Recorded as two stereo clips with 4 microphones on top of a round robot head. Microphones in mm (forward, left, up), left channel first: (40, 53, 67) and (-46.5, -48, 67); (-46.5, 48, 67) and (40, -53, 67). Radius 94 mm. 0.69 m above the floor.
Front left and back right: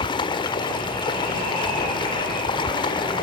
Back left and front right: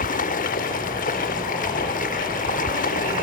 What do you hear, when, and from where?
0.0 s running water: 105° left, 1.5 m